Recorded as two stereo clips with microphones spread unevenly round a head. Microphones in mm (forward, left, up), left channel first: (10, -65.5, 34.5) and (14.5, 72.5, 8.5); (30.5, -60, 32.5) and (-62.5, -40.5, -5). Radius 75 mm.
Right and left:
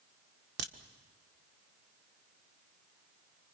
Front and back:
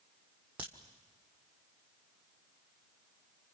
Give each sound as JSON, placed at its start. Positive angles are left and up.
{"t": 0.6, "sound": "a crack", "azimuth_deg": 85, "distance_m": 1.4}